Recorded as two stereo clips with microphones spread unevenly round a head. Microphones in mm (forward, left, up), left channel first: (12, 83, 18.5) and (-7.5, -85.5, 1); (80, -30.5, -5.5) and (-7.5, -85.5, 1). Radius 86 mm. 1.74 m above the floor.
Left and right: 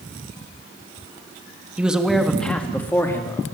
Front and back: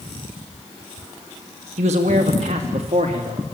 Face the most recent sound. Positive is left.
turn(degrees=155)